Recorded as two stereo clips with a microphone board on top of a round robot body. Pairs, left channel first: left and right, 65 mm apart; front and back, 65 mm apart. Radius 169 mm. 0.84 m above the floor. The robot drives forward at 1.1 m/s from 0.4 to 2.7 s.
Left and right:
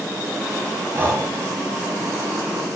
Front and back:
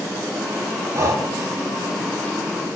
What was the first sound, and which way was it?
Breathing, 140° right.